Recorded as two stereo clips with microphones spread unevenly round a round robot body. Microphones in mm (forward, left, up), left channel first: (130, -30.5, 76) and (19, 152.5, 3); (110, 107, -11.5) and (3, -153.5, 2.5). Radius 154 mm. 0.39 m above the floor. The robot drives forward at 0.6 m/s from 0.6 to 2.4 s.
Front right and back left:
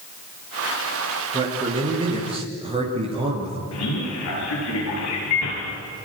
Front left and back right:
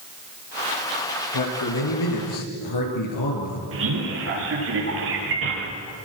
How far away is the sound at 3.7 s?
About 10 m.